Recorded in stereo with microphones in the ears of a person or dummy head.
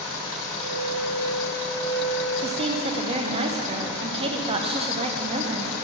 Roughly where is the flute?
Left.